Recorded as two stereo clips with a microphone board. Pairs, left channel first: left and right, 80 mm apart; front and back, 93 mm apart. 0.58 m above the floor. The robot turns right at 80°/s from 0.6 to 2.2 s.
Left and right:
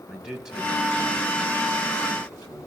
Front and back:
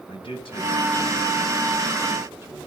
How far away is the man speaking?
About 5 m.